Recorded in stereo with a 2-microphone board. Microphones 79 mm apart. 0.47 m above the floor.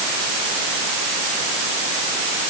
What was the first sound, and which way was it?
Only background noise.